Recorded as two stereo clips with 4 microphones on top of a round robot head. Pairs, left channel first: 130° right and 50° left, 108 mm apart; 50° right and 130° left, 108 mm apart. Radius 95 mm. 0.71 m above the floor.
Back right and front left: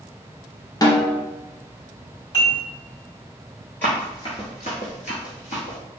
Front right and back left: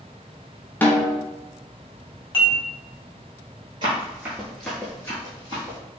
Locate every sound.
0.8 s a snare drum: 110° right, 0.8 m
2.3 s dishes clattering: 85° right, 1.8 m
3.8 s running footsteps: 160° left, 0.7 m; by 5.8 s 100° right, 1.1 m